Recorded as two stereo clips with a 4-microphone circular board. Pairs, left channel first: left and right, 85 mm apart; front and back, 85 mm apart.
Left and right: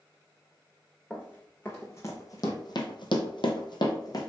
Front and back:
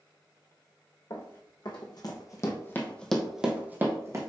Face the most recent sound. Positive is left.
turn(degrees=130)